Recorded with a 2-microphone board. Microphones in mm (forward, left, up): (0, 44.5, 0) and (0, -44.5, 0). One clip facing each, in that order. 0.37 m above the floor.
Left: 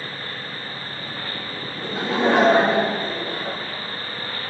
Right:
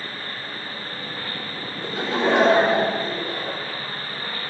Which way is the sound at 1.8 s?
45° left (ahead or behind).